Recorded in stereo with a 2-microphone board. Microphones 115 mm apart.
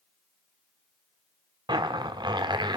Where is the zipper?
40° right (ahead or behind), 1.3 m.